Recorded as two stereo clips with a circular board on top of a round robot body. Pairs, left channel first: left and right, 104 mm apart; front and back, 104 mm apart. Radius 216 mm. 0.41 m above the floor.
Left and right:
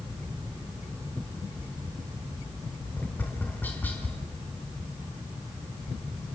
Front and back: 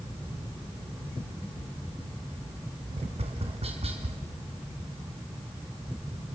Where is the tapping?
165° left, 3.5 m.